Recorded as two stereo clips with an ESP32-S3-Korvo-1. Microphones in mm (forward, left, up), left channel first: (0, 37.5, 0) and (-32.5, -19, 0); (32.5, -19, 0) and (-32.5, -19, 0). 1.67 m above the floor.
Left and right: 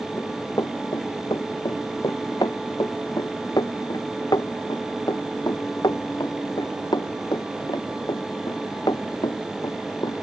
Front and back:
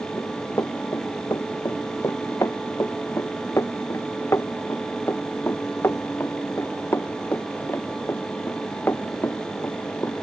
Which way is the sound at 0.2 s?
40° left.